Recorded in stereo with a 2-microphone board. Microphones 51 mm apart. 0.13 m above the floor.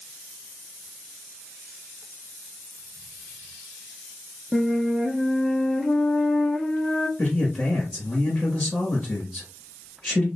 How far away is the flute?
About 0.7 m.